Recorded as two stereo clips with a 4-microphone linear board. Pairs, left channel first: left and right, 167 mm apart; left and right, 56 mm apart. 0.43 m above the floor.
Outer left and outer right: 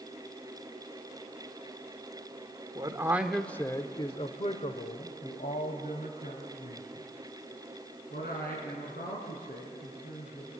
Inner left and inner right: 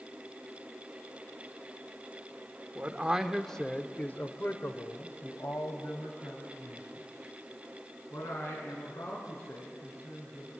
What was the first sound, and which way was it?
A man speaking, 25° right (ahead or behind).